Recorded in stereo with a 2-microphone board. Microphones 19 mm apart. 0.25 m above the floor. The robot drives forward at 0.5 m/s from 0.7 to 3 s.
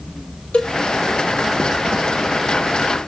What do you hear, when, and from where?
0.5 s a cowbell: 75° left (ahead or behind), 1.0 m